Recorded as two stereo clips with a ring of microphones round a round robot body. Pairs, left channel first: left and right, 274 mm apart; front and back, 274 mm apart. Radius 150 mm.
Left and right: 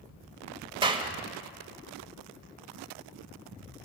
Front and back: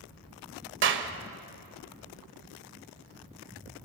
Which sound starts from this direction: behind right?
A clap, at 0.8 s.